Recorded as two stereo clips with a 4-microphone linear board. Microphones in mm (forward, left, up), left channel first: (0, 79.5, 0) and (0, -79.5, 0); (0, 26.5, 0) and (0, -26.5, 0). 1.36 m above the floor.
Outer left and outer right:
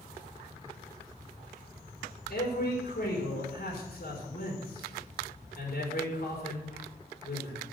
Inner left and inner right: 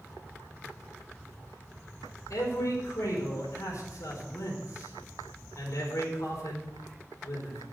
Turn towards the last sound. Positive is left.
turn(degrees=70)  # may be behind; listen again after turning